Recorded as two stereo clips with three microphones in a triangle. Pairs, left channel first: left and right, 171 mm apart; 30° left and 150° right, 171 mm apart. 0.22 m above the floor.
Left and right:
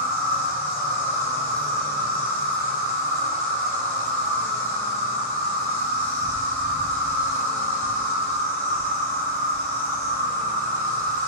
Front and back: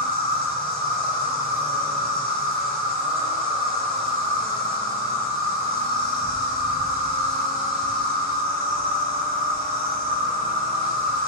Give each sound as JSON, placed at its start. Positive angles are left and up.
{"t": 0.0, "sound": "an insect", "azimuth_deg": -55, "distance_m": 1.3}